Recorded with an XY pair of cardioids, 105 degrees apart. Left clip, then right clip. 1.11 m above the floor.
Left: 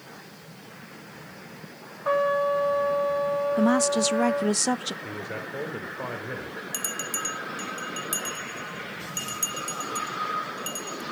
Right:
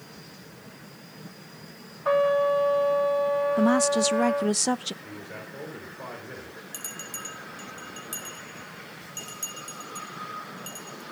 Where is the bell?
45° left, 2 m.